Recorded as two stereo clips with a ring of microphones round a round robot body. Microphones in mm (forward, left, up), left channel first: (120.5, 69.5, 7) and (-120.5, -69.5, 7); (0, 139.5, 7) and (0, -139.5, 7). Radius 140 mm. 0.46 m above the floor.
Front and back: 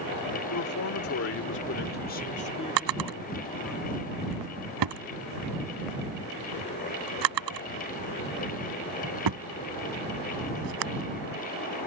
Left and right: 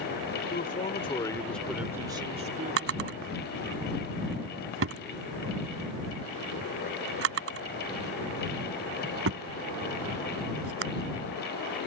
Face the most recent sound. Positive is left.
turn(degrees=-135)